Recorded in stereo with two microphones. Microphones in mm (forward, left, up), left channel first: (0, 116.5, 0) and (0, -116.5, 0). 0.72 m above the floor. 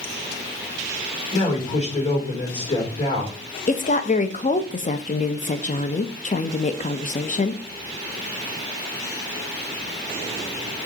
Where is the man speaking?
30° left (ahead or behind), 3 m.